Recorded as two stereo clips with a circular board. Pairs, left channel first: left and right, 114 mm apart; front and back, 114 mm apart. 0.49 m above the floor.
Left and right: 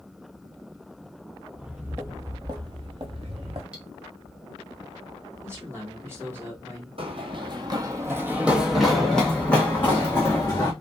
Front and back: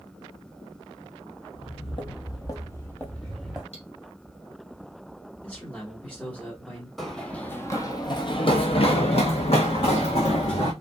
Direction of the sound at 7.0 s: 90° right.